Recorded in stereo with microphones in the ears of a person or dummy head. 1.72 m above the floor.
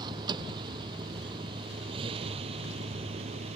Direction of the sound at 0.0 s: 30° right (ahead or behind).